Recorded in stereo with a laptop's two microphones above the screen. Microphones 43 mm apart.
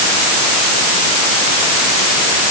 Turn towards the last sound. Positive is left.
No sound to turn to.